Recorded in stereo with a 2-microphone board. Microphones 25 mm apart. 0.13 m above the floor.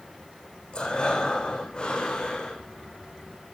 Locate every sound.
0.7 s breathing: 40° left (ahead or behind), 8 m